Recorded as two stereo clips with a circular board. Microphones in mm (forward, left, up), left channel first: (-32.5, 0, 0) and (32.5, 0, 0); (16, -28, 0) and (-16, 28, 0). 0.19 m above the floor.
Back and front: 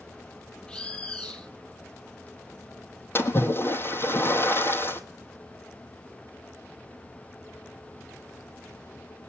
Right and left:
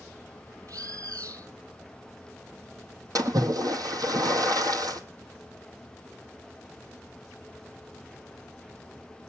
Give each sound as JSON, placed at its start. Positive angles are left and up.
{"t": 0.7, "sound": "a bird", "azimuth_deg": 105, "distance_m": 2.5}
{"t": 3.1, "sound": "a splash", "azimuth_deg": 130, "distance_m": 1.4}